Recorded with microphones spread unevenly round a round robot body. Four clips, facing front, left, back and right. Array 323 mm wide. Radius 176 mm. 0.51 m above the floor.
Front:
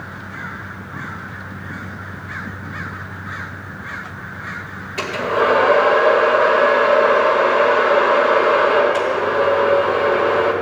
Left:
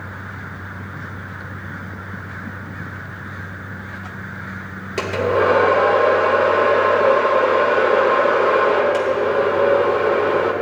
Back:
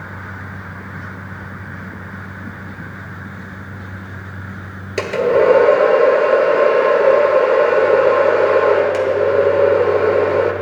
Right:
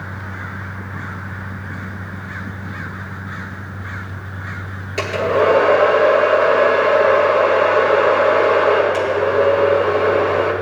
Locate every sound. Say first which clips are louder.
5.0 s a hair dryer: right 1 dB, back 5 dB; 175° left, 1.4 m